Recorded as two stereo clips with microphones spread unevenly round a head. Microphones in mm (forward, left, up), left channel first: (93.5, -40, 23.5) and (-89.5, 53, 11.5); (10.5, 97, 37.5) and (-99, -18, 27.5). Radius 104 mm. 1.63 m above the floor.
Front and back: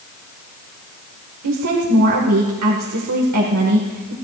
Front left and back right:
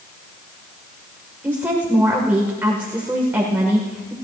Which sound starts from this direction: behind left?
A woman speaking, at 1.4 s.